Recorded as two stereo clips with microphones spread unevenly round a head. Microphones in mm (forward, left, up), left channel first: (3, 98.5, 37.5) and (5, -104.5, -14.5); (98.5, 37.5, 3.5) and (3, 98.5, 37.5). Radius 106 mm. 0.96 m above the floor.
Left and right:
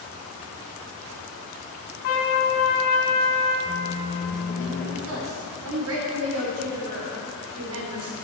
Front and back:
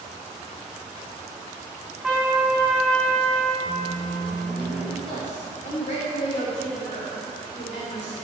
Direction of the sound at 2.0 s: 60° left.